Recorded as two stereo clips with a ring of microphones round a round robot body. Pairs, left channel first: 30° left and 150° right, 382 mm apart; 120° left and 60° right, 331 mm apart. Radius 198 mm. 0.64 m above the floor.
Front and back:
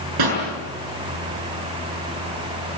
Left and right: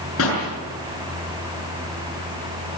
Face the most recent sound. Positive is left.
turn(degrees=180)